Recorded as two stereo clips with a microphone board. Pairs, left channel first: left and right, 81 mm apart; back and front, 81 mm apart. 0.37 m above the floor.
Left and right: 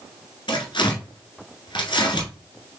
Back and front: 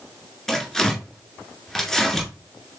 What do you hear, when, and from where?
0.5 s tearing paper: 100° left, 1.7 m